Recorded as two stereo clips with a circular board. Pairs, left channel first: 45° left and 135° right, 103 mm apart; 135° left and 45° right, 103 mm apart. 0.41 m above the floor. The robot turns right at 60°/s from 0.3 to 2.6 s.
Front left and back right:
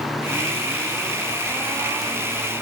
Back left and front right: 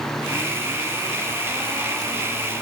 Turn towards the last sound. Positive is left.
No sound to turn to.